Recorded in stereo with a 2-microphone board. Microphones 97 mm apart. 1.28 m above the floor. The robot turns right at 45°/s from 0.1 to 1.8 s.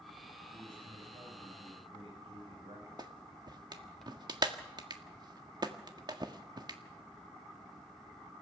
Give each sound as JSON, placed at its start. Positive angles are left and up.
{"t": 0.5, "sound": "a man speaking", "azimuth_deg": -130, "distance_m": 10.0}
{"t": 3.0, "sound": "a clap", "side_deg": -45, "distance_m": 1.6}